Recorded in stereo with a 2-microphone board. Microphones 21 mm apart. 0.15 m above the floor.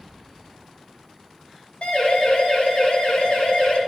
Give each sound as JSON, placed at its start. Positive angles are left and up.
{"t": 1.8, "sound": "a siren", "side_deg": 65, "distance_m": 9.5}